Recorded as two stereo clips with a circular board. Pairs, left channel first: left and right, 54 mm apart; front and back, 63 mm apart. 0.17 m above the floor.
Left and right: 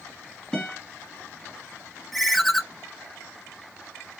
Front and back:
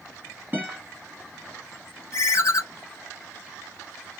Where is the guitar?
165° left, 1.5 m.